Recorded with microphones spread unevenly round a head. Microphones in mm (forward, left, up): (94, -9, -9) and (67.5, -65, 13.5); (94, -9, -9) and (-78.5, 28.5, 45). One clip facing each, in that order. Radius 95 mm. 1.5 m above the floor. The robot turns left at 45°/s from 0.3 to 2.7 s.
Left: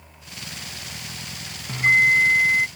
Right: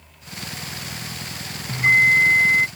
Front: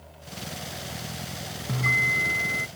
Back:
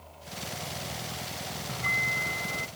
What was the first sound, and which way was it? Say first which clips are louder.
A bell: right 1 dB, front 5 dB; 50° right.